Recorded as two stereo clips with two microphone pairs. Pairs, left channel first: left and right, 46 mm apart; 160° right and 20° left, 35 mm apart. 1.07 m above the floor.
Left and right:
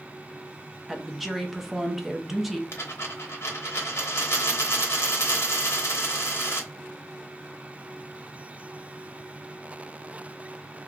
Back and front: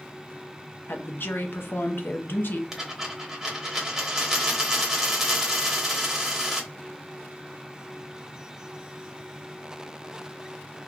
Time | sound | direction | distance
0.9 | a woman speaking | straight behind | 0.8 m
2.7 | a dropped coin | 100° left | 1.2 m